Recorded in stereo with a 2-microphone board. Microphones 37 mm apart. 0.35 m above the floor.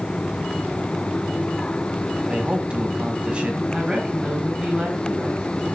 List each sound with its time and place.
2.2 s a man speaking: 30° right (ahead or behind), 2 m
3.7 s a woman speaking: 15° right (ahead or behind), 7 m